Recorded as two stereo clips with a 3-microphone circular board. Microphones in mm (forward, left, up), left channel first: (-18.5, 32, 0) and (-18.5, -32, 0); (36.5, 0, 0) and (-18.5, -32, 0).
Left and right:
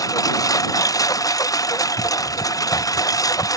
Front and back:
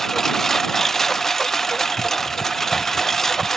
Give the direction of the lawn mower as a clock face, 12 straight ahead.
8 o'clock.